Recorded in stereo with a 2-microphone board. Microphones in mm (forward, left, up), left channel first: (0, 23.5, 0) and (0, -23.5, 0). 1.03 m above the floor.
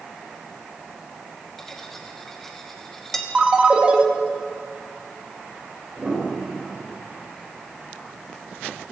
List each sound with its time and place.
1.6 s cutlery clinking: 5° left (ahead or behind), 1.5 m
3.4 s a ringtone: 25° right (ahead or behind), 1.1 m
6.0 s a piano: 30° right (ahead or behind), 4 m